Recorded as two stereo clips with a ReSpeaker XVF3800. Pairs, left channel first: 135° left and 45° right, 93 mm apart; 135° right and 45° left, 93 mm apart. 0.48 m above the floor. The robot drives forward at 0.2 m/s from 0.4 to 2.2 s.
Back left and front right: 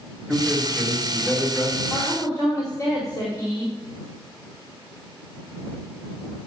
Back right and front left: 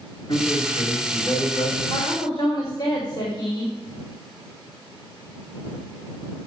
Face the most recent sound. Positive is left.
turn(degrees=-175)